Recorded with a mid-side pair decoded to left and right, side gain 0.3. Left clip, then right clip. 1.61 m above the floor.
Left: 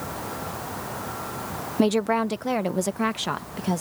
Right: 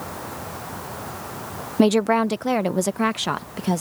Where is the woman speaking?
45° right; by 3.8 s 40° right.